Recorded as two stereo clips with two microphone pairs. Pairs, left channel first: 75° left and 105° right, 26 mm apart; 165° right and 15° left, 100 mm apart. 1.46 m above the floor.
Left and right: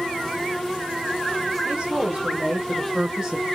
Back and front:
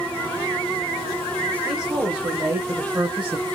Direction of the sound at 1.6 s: 65° right.